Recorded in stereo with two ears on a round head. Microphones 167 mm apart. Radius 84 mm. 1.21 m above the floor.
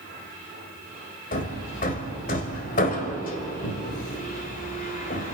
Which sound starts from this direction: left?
Hammering, at 1.3 s.